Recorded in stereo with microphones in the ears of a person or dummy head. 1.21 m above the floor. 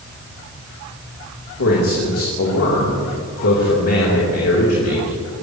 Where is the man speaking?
85° left, 3.5 m.